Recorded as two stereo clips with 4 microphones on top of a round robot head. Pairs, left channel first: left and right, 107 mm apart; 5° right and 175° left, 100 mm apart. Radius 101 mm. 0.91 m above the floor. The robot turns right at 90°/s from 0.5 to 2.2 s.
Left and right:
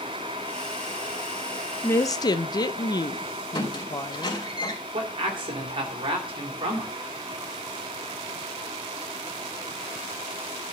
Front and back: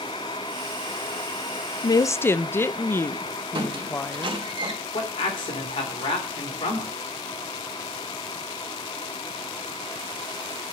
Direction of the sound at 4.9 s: 45° right.